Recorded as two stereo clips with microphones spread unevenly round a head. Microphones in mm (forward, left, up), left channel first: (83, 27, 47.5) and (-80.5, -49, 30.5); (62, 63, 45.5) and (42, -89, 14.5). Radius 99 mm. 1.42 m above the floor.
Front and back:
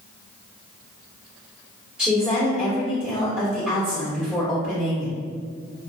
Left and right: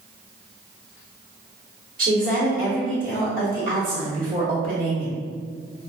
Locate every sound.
2.0 s a woman speaking: 70° right, 1.3 m